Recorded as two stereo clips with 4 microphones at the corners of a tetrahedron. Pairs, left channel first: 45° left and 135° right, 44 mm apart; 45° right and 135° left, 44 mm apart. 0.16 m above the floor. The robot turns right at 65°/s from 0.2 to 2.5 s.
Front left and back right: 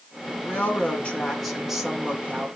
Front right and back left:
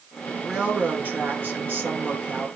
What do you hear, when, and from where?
0.4 s a woman speaking: 65° left, 2.5 m; by 2.5 s 165° right, 2.5 m